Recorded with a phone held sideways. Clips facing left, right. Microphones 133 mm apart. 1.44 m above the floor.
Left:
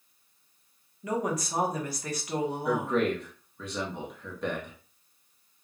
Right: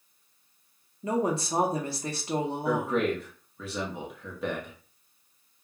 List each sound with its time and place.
1.0 s a woman speaking: 30° right (ahead or behind), 0.8 m
2.6 s a man speaking: 5° right (ahead or behind), 0.7 m